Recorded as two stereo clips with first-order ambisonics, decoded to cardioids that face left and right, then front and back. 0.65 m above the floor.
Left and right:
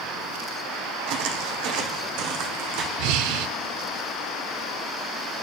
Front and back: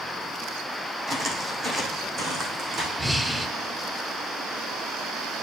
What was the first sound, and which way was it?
Footsteps, 105° right.